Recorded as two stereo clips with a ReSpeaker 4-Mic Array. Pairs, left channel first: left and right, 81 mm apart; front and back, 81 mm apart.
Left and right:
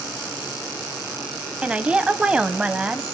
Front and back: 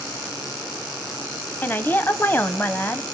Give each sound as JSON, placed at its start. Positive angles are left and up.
{"t": 1.6, "sound": "a woman speaking", "azimuth_deg": -30, "distance_m": 1.2}